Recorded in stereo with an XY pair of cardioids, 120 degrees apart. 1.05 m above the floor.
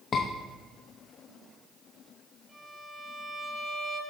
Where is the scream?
35° left, 0.8 m.